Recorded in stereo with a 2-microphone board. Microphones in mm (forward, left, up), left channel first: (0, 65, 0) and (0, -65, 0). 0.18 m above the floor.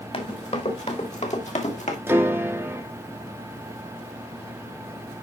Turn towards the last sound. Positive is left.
turn(degrees=-20)  # may be behind; listen again after turning